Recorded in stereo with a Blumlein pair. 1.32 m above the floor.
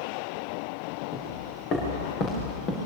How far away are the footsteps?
About 7 m.